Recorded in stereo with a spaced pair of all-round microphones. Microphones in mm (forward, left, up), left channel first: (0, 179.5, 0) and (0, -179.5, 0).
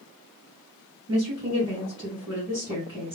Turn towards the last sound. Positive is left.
turn(degrees=10)  # may be behind; listen again after turning